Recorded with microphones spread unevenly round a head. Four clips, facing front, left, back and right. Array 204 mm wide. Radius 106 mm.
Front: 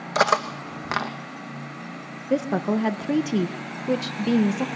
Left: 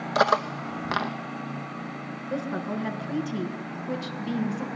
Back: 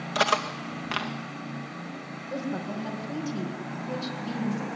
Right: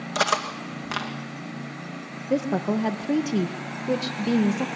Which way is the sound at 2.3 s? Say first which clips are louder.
Right 7 dB, front 10 dB; 35° right.